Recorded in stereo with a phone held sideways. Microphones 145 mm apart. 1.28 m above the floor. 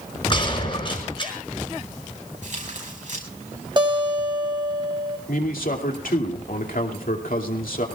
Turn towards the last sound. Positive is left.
turn(degrees=85)